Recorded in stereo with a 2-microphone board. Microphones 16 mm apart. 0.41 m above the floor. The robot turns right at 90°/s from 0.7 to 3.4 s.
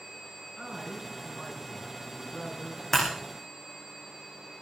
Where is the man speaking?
55° right, 5.5 m; by 2.8 s 140° left, 5.5 m.